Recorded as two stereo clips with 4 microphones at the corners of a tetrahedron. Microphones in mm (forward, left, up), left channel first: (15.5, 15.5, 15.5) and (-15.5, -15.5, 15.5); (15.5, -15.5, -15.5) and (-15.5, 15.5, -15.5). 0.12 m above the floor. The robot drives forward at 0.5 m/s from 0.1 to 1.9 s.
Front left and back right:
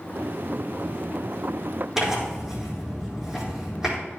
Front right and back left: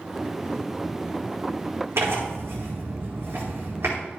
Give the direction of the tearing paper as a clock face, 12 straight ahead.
7 o'clock.